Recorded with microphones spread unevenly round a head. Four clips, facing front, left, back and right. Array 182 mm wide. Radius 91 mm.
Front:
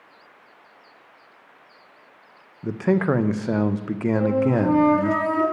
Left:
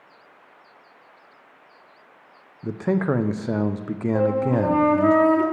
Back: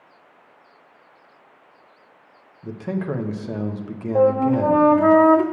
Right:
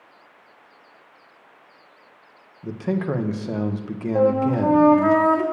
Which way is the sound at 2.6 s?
15° left.